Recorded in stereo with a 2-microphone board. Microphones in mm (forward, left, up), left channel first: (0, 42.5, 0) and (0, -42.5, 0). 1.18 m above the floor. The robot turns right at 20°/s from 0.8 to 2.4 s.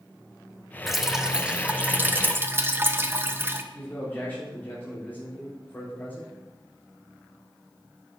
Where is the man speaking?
25° left (ahead or behind), 3.5 m.